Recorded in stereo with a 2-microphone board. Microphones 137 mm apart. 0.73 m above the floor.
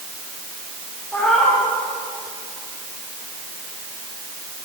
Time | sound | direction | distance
1.1 | a cat meowing | 10° left (ahead or behind) | 8 m